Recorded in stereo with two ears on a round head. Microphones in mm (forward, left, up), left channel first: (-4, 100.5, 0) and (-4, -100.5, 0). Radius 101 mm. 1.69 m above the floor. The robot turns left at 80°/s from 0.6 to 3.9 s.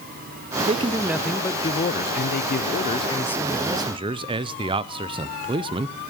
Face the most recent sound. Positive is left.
turn(degrees=-35)